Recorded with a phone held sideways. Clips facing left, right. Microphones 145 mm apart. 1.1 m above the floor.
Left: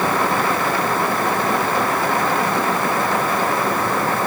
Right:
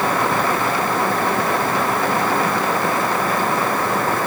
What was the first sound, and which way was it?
Only background noise.